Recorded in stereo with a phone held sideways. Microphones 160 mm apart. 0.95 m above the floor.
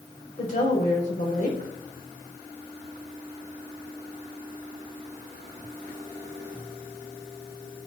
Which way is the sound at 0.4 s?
55° left (ahead or behind).